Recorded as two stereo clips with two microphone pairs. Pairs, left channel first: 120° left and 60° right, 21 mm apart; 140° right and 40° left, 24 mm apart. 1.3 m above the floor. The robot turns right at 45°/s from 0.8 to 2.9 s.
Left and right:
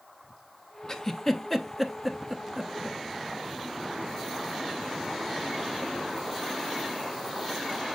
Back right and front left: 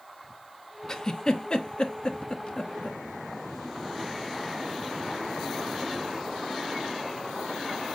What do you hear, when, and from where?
0.9 s a giggle: 160° left, 0.8 m; by 3.0 s 110° right, 0.8 m